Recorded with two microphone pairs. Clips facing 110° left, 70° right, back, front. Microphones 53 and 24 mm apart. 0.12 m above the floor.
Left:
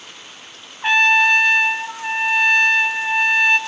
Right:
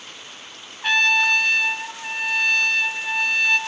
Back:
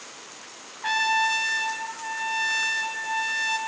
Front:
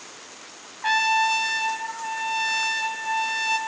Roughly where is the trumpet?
Left.